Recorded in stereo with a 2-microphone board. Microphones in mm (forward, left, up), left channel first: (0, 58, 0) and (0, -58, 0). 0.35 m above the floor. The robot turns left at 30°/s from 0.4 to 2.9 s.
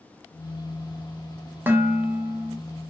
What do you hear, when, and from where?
1.7 s dishes clattering: 20° right (ahead or behind), 0.5 m